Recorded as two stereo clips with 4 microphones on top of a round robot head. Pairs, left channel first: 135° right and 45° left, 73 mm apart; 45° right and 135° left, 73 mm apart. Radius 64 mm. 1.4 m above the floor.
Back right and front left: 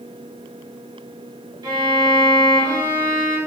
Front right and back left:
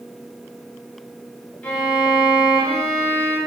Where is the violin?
25° left, 3 m.